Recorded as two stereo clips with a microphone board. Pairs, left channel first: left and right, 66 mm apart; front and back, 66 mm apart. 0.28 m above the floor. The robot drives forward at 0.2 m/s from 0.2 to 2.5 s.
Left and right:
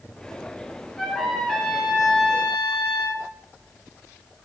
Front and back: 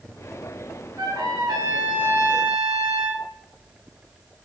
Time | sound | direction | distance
1.0 | a trumpet | 175° left | 1.1 m